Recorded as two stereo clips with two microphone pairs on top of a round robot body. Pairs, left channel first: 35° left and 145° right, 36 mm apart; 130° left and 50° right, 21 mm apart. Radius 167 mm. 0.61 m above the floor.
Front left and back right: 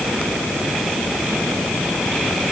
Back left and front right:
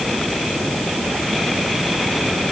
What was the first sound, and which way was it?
Only background noise.